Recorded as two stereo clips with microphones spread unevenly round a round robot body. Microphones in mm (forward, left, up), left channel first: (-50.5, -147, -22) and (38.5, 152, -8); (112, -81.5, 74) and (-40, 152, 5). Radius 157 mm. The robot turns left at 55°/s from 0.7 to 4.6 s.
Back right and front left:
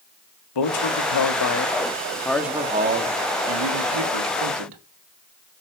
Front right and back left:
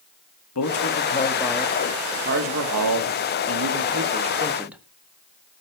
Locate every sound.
0.6 s a man speaking: 105° right, 1.3 m; by 4.8 s 40° left, 1.3 m